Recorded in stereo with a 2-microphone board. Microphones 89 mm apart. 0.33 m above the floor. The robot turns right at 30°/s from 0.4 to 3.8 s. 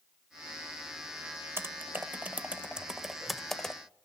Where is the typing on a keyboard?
25° right (ahead or behind), 0.6 m; by 3.8 s 5° left (ahead or behind), 0.6 m.